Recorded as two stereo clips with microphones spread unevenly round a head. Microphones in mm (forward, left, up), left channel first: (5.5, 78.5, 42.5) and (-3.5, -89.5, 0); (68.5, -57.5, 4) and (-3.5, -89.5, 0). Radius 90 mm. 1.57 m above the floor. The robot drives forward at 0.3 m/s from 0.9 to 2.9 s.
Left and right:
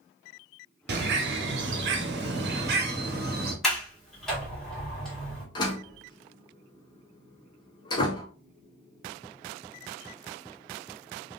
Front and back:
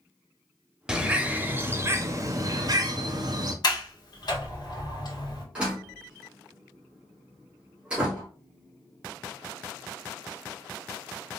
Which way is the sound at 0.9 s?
75° right.